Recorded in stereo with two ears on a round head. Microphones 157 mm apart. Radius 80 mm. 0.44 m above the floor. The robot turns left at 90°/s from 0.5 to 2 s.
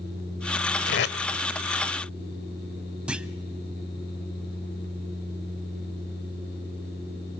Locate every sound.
0.9 s tape being pulled: 70° left (ahead or behind), 1.0 m; by 1.2 s 50° left (ahead or behind), 1.0 m
3.1 s a clunk: 5° right (ahead or behind), 0.6 m